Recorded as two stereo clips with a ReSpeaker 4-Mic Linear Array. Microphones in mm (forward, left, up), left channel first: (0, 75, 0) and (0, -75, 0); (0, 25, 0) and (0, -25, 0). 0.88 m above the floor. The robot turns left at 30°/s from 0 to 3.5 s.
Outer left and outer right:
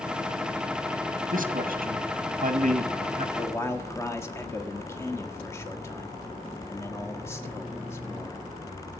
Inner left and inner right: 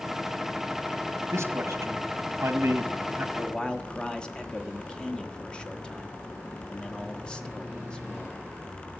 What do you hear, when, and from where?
1.3 s a man speaking: 80° right, 1.2 m; by 3.2 s 135° right, 1.2 m
3.4 s a man speaking: 10° left (ahead or behind), 1.5 m; by 8.4 s 15° left (ahead or behind), 1.5 m